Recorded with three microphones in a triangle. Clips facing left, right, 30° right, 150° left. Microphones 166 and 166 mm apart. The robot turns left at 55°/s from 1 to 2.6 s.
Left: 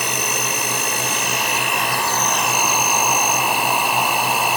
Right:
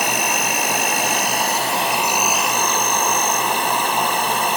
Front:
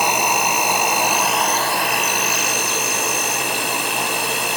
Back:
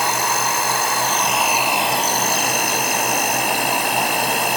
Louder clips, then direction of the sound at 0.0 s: Right 3 dB, front 2 dB; 100° right.